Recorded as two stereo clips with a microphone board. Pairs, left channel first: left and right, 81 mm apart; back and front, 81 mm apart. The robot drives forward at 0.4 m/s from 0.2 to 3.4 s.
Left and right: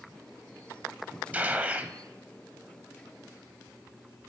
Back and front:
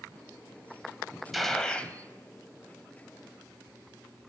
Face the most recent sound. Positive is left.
turn(degrees=-165)